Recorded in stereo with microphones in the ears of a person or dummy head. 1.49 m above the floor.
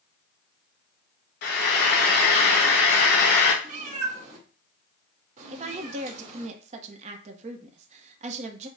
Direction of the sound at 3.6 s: 50° right (ahead or behind).